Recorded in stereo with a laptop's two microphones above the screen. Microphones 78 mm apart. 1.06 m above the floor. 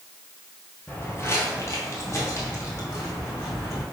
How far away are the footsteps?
About 1.1 m.